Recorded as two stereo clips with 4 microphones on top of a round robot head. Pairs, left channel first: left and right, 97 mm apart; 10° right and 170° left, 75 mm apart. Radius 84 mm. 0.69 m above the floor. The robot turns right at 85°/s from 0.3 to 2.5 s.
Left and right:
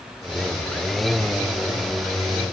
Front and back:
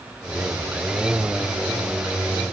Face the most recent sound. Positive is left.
No sound to turn to.